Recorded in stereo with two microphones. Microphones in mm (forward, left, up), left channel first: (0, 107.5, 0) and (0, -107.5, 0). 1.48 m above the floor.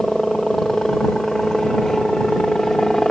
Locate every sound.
0.0 s a helicopter: centre (ahead or behind)